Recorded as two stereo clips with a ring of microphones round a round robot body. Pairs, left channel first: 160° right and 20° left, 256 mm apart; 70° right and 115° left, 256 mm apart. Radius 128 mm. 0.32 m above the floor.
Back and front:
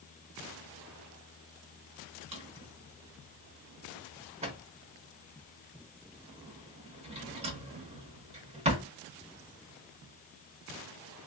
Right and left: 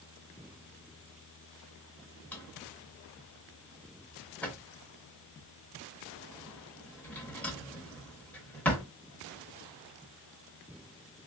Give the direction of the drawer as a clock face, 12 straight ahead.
12 o'clock.